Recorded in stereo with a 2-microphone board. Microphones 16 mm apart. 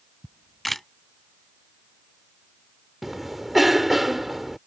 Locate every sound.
0.2 s a camera shutter: 10° left (ahead or behind)
3.0 s a cough: 10° right (ahead or behind)